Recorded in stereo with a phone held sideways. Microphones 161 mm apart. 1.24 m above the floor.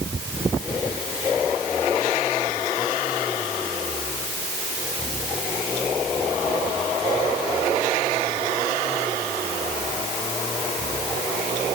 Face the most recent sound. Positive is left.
No sound to turn to.